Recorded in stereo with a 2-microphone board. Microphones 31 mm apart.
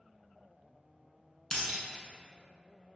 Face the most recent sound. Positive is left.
turn(degrees=35)  # may be behind; listen again after turning